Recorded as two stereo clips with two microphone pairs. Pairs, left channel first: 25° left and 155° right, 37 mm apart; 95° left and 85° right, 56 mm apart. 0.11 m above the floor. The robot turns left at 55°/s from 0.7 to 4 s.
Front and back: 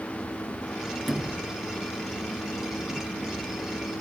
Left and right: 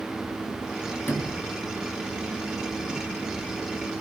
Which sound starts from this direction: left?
A sliding door, at 1.1 s.